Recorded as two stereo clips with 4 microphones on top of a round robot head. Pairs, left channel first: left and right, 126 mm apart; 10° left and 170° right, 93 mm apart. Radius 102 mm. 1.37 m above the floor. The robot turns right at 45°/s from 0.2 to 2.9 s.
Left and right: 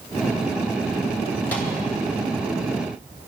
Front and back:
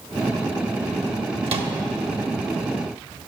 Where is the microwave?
165° left, 1.8 m; by 1.7 s straight behind, 1.8 m.